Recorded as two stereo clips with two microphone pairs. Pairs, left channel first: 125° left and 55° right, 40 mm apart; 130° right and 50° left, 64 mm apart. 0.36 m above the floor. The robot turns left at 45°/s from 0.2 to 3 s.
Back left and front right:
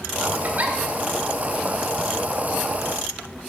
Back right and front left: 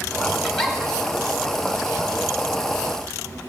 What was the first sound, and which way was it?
A giggle, 40° right.